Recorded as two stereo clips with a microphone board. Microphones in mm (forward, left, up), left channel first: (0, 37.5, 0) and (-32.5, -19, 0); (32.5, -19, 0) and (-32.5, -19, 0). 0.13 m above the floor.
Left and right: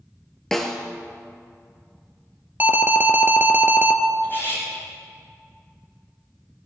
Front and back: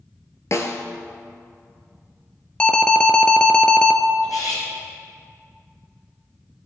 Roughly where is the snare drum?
Ahead.